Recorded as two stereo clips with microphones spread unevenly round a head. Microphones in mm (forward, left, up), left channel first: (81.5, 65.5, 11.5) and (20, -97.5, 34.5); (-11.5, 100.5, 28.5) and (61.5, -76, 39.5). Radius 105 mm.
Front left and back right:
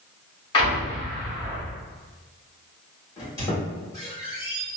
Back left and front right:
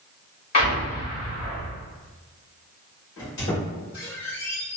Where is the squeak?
145° left, 1.4 m.